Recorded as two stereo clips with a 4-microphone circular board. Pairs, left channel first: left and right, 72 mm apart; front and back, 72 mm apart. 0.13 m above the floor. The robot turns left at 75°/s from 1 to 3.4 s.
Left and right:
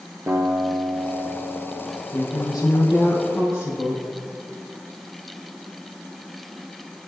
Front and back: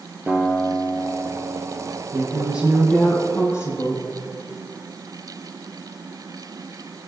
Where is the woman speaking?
140° left, 3.5 m; by 4.0 s 40° left, 3.5 m.